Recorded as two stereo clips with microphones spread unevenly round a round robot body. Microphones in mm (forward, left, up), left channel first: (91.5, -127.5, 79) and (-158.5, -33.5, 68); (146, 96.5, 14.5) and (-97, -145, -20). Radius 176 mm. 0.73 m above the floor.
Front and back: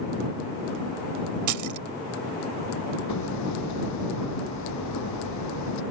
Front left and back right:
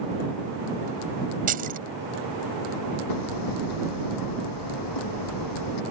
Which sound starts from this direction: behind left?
Keys jangling, at 1.5 s.